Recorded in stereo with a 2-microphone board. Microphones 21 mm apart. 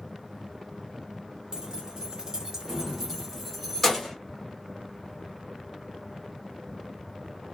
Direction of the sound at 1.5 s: 40° right (ahead or behind).